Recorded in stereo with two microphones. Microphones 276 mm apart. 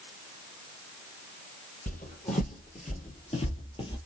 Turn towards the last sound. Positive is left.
turn(degrees=20)  # may be behind; listen again after turning